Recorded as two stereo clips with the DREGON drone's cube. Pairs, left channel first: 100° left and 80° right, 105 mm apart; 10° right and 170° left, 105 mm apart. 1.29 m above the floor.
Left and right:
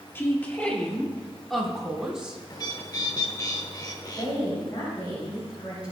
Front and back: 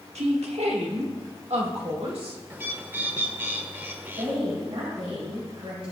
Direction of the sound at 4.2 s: 150° left.